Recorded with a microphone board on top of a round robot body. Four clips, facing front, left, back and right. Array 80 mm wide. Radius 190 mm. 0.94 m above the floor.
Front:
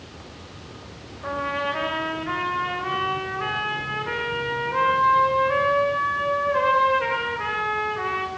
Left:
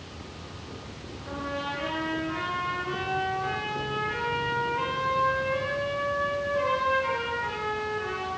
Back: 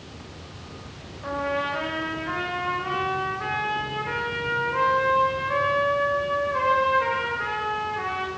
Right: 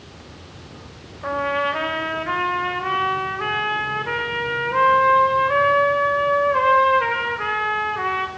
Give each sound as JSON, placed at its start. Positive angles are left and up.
{"t": 1.2, "sound": "a trumpet", "azimuth_deg": -85, "distance_m": 5.0}